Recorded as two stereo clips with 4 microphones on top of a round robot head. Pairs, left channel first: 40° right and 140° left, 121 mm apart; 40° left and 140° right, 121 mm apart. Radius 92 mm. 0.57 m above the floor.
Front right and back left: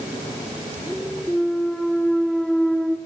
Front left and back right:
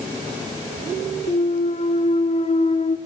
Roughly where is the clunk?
Ahead left.